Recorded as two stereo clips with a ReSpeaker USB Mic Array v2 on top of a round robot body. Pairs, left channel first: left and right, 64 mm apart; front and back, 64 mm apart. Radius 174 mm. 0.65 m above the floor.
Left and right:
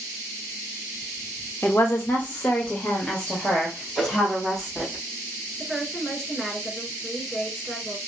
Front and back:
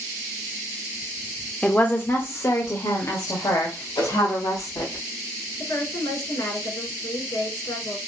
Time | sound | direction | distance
1.6 | a woman speaking | 60° left | 1.1 m
4.0 | a whoosh | 10° right | 3.5 m
5.6 | a woman speaking | 10° left | 3 m